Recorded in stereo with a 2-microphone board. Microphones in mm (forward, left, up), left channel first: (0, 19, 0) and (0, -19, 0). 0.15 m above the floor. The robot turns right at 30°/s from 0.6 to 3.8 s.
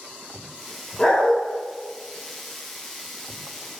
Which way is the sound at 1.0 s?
20° left (ahead or behind).